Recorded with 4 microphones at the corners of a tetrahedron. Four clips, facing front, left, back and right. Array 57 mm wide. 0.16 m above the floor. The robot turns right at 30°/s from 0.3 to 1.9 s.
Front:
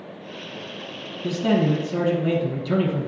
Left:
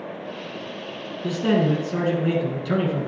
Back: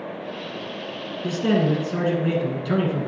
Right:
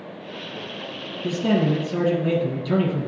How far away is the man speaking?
About 1.9 m.